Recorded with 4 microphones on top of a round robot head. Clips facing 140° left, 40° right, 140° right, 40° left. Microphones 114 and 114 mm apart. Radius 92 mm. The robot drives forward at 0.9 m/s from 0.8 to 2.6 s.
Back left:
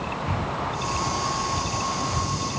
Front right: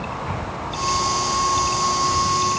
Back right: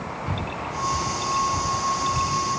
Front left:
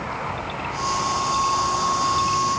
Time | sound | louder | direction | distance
0.3 | breathing | even, front left 1 dB | 150° right | ?